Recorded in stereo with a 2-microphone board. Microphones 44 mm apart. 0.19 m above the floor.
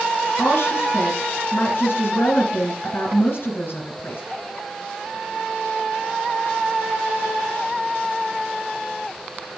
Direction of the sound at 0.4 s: 55° left (ahead or behind).